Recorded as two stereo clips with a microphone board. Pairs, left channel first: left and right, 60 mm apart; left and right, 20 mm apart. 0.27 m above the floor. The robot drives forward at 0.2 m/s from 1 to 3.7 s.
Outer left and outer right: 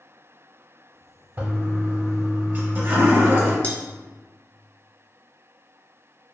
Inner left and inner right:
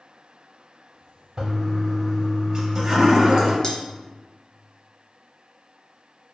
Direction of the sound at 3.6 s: 25° left (ahead or behind).